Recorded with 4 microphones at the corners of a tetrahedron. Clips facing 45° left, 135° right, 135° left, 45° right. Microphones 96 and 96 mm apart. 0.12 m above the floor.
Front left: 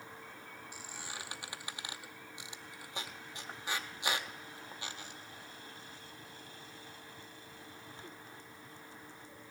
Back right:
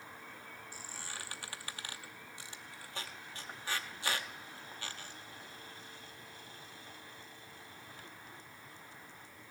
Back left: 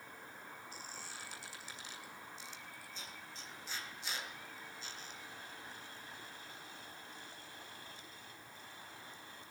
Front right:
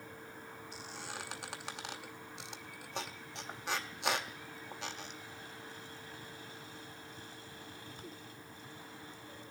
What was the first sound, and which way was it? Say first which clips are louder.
A squeak: front left 1 dB, front right 5 dB; 30° right.